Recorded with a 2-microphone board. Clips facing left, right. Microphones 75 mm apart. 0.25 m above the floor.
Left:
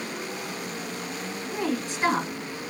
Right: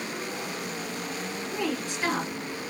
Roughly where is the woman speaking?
Left.